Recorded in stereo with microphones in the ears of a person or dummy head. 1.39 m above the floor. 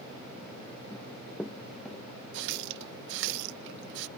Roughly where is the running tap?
Right.